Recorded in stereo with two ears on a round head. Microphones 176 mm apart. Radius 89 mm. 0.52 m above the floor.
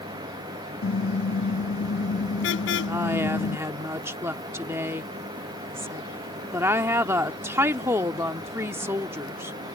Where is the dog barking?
No dog barking in this recording.